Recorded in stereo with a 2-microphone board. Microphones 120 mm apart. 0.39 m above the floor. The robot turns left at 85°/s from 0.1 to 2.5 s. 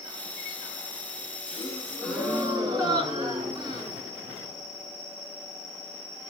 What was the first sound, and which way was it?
A gasp, 50° left.